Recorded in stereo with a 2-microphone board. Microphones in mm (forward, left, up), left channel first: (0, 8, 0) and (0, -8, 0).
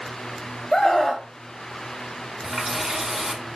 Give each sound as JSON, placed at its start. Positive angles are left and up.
{"t": 0.7, "sound": "a scream", "side_deg": 25, "distance_m": 1.2}
{"t": 2.4, "sound": "a running tap", "side_deg": -30, "distance_m": 1.0}